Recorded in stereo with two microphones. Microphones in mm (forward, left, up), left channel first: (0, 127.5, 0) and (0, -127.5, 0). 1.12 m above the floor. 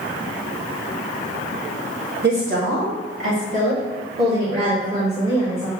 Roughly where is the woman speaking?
Right.